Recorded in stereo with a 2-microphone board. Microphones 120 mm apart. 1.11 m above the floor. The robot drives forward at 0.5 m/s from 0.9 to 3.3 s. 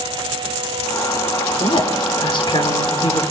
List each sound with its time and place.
1.6 s a woman speaking: 50° left (ahead or behind), 3 m; by 3.2 s 40° left (ahead or behind), 3.5 m